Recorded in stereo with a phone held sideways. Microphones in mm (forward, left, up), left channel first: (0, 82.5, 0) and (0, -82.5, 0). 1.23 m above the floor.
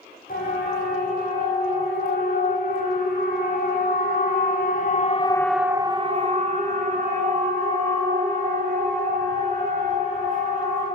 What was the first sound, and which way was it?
A siren, 65° left (ahead or behind).